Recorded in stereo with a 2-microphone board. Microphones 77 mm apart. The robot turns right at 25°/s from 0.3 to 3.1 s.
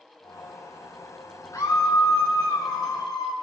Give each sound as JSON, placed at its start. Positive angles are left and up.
{"t": 1.5, "sound": "a scream", "azimuth_deg": 50, "distance_m": 2.5}